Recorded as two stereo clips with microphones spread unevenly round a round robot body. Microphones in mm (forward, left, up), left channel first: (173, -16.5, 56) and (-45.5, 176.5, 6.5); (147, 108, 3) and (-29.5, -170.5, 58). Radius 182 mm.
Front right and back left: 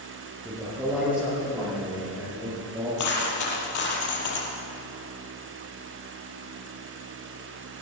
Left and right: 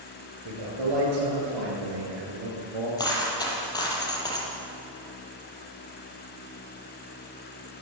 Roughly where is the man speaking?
Behind right.